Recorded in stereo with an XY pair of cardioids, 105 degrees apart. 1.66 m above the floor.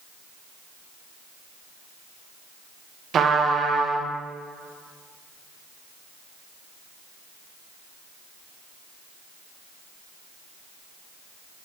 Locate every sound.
3.1 s a trumpet: 55° right, 1.0 m